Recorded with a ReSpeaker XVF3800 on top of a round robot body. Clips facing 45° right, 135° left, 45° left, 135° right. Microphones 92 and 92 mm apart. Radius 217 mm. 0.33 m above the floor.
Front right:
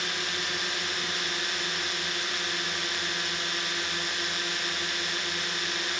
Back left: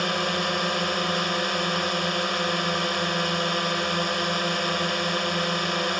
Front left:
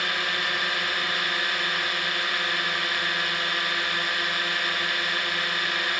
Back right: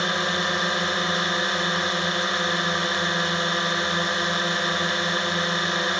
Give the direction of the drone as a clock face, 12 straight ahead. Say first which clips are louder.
Back left 9 dB, back right 4 dB; 7 o'clock.